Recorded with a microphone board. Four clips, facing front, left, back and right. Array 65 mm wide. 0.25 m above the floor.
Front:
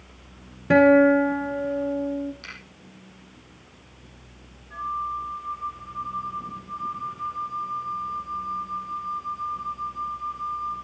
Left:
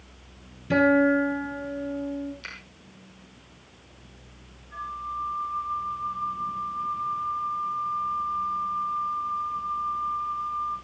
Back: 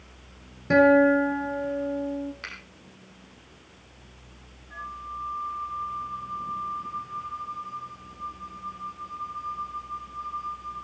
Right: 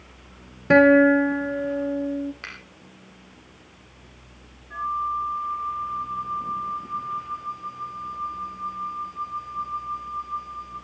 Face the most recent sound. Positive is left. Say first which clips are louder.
# right 7 dB, front 8 dB
turn(degrees=-90)